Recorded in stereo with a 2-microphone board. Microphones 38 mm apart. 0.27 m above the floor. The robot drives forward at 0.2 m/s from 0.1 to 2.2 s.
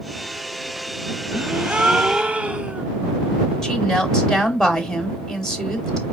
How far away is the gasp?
About 0.5 m.